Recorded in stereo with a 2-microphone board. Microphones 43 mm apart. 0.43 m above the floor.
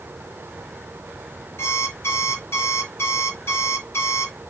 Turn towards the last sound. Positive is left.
turn(degrees=80)